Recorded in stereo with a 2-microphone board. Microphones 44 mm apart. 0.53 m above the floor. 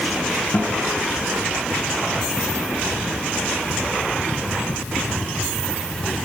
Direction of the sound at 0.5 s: 45° left (ahead or behind).